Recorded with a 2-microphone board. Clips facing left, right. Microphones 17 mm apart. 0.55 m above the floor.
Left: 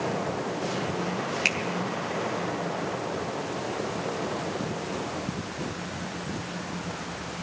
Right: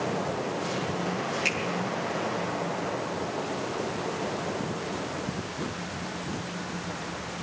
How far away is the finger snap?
About 4.5 m.